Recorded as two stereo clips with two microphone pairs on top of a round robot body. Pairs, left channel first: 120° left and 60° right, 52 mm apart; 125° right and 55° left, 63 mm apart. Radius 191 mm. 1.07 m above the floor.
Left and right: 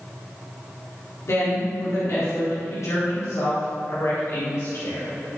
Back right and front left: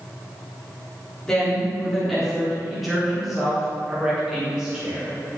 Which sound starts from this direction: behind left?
A woman speaking, at 1.2 s.